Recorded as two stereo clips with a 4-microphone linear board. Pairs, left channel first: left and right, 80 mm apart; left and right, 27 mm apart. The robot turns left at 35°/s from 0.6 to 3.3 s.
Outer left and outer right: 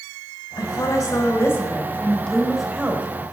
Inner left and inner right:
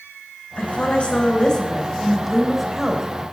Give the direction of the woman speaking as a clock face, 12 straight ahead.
10 o'clock.